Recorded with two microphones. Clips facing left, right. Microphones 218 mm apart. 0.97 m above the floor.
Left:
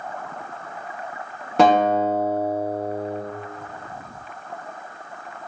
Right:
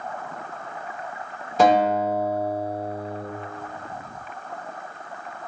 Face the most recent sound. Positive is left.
turn(degrees=60)  # may be behind; listen again after turning